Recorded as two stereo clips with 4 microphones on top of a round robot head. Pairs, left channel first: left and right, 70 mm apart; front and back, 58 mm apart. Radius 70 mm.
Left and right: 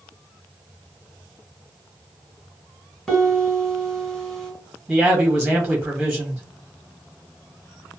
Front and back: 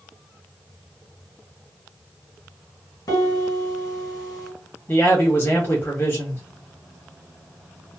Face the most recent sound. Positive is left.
turn(degrees=-5)